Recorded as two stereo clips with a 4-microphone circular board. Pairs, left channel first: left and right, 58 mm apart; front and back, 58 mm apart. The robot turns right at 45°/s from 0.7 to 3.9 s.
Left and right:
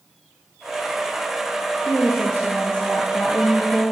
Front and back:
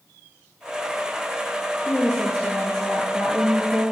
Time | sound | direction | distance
1.8 | a woman speaking | 80° left | 3 m